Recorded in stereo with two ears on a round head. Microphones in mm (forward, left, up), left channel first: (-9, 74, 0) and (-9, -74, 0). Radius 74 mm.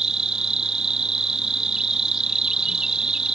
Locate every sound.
0.0 s an insect: 5° right (ahead or behind)